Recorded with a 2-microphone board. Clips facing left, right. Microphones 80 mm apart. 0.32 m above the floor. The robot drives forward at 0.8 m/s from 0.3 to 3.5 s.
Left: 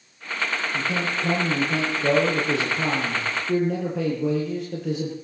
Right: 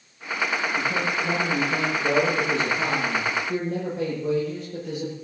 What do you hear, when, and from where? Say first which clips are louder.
0.7 s a man speaking: right 1 dB; 70° left (ahead or behind), 8 m; by 5.2 s 80° left, 7.5 m